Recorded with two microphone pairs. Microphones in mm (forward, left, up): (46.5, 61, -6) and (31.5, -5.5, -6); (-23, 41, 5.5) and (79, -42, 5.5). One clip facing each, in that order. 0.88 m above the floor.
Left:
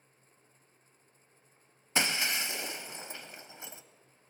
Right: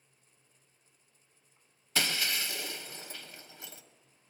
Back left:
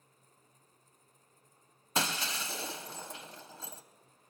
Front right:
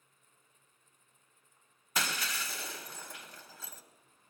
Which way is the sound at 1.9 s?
105° left.